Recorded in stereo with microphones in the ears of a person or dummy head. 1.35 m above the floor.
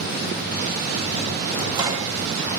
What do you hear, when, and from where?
1.6 s a microwave: 25° right (ahead or behind), 1.5 m